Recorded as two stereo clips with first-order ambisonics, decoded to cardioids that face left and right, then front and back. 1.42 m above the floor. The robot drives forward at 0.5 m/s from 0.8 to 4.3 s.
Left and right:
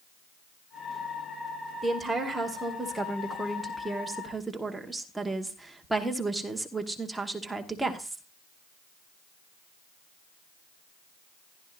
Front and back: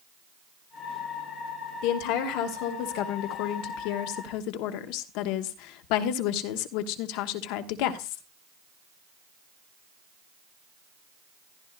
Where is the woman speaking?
Straight ahead, 2.5 m; by 8.2 s 5° right, 1.3 m.